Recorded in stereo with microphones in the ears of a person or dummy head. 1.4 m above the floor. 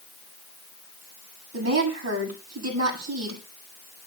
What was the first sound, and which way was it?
A woman speaking, 85° right.